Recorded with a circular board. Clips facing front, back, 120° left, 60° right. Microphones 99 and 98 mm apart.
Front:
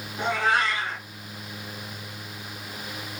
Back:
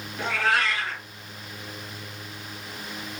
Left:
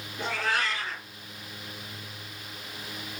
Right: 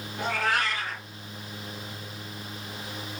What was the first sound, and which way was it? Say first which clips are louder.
A cat meowing: front 1 dB, right 2 dB; 60° right.